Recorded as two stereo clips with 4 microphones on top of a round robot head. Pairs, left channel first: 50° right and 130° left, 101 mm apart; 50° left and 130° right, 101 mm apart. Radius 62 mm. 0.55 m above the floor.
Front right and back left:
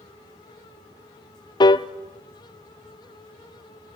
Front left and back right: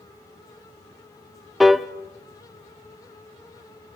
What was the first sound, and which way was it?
A piano, 45° right.